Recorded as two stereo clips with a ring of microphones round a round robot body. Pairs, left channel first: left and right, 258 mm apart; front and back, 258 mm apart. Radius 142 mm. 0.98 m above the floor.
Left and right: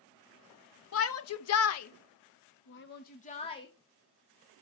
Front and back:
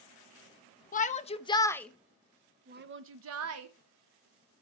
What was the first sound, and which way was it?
A shout, 60° left.